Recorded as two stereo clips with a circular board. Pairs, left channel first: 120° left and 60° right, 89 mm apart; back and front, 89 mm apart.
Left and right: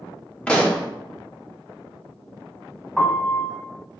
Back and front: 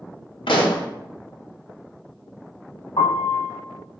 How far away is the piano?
About 1.4 m.